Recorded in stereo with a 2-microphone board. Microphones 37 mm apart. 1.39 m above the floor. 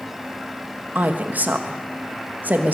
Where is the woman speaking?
55° right (ahead or behind), 1.9 m.